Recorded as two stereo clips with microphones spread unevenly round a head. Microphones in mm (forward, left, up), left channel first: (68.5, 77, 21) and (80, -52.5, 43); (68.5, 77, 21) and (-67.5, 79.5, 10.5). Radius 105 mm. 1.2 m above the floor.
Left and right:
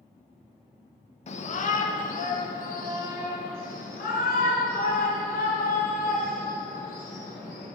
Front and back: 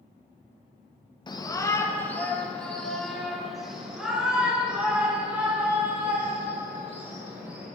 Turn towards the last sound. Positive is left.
turn(degrees=100)